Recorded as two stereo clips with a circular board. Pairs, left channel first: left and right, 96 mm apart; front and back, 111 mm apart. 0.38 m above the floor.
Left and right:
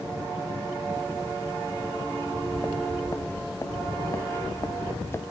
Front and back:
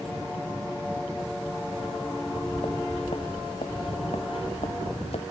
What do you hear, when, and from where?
2.2 s footsteps: 30° left; by 5.2 s 25° left